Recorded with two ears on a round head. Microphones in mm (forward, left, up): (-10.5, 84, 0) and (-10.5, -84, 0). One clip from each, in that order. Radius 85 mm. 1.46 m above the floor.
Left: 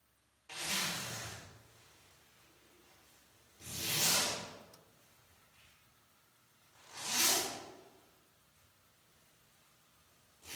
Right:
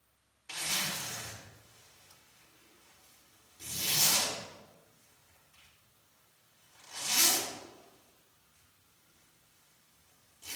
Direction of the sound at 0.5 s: 60° right (ahead or behind).